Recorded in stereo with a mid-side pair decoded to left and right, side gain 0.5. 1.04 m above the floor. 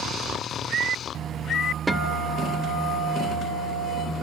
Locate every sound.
1.9 s a guitar: 15° right, 1.7 m